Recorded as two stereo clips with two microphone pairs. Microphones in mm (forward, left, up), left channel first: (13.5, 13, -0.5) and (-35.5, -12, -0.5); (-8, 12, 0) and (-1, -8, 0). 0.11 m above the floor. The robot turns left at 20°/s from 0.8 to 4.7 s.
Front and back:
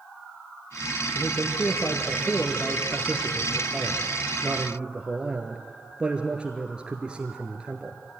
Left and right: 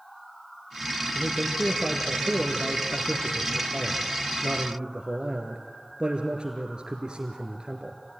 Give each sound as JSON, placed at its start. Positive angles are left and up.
{"t": 1.1, "sound": "a man speaking", "azimuth_deg": -20, "distance_m": 1.8}